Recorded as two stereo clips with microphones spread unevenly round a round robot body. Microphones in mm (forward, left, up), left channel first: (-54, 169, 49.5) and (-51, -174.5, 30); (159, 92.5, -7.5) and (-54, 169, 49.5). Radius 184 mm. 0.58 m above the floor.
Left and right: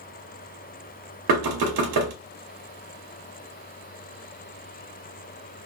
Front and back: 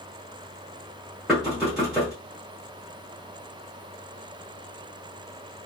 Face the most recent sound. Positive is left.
turn(degrees=-105)